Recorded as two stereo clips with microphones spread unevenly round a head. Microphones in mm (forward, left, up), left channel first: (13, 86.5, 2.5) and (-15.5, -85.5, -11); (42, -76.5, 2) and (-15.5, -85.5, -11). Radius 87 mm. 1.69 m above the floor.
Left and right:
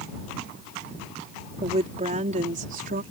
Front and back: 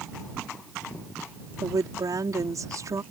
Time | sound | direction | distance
1.6 | a woman speaking | 155° right | ?